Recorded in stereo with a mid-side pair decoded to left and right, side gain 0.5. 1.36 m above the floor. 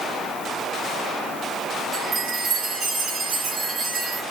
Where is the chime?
60° right, 5.5 m.